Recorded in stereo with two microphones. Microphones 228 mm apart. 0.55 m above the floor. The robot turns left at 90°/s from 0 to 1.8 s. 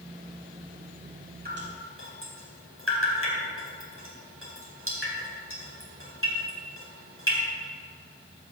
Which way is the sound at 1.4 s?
45° right (ahead or behind).